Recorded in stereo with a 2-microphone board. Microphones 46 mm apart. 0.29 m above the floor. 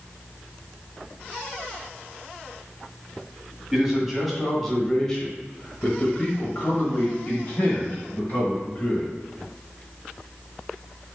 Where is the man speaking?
5° right (ahead or behind), 1.5 m; by 9.1 s 35° left (ahead or behind), 2 m.